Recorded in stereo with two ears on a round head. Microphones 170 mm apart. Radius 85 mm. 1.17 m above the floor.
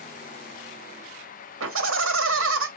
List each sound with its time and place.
1.6 s laughter: 75° right (ahead or behind), 3 m